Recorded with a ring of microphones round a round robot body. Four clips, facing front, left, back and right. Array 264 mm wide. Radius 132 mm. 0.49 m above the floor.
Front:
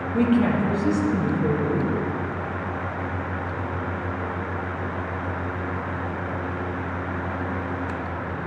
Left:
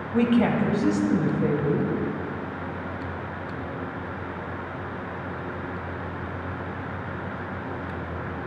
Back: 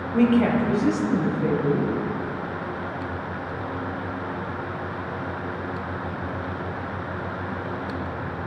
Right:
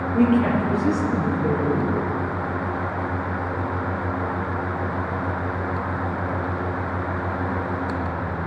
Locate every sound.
0.1 s a woman speaking: 115° left, 3 m